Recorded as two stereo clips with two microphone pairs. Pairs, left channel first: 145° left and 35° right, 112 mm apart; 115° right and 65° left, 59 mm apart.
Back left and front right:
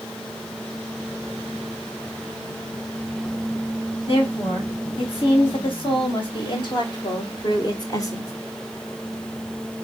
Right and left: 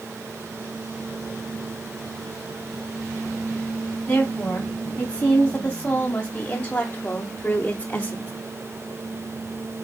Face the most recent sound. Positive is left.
turn(degrees=-170)